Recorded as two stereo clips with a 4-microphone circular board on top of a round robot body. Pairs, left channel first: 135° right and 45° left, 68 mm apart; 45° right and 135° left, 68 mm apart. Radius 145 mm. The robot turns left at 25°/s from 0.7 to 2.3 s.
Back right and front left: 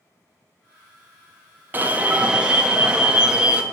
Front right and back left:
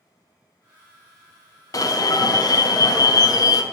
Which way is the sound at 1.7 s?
15° right.